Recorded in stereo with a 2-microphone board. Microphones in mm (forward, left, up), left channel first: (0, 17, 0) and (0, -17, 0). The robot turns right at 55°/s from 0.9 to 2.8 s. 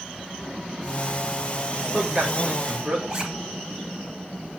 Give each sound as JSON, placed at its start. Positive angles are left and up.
{"t": 1.8, "sound": "a man speaking", "azimuth_deg": -160, "distance_m": 3.0}
{"t": 3.1, "sound": "a zipper", "side_deg": -30, "distance_m": 1.8}